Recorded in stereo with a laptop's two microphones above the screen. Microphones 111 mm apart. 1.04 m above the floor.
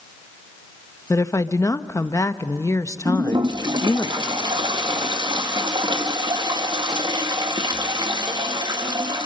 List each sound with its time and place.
1.1 s a woman speaking: 25° left (ahead or behind), 0.9 m
3.0 s a toilet flushing: 40° right (ahead or behind), 1.5 m